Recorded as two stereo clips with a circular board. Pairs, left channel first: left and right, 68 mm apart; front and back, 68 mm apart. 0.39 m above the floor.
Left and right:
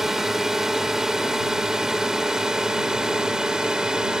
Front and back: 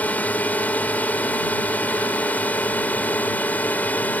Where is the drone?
15° right; by 4.2 s 25° right.